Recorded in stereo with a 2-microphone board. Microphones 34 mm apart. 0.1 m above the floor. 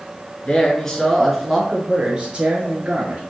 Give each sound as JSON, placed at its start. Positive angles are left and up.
{"t": 0.5, "sound": "a man speaking", "side_deg": 25, "distance_m": 1.2}